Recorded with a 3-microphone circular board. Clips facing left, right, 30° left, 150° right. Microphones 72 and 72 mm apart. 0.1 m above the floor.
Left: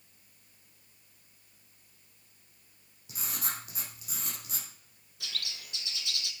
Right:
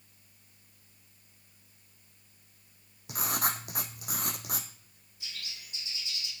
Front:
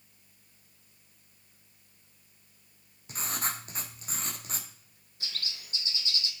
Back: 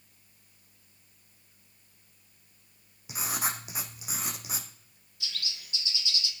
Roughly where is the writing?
Right.